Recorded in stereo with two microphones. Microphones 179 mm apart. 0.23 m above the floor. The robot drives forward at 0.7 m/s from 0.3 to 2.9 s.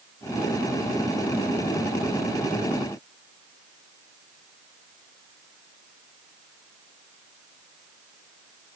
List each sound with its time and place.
Only background noise.